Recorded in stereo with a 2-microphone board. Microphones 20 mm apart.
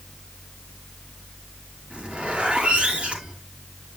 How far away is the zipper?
About 3.5 m.